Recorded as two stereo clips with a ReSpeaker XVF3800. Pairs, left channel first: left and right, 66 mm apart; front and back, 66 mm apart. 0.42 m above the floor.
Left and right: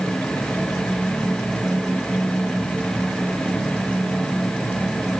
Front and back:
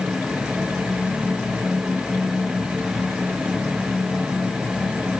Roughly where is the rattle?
No rattle in this recording.